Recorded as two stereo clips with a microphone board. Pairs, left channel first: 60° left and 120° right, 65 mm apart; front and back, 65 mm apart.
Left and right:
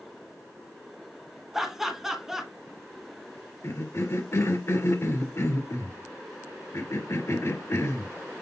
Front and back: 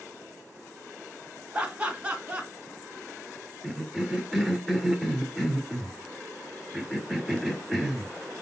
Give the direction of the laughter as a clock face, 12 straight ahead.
6 o'clock.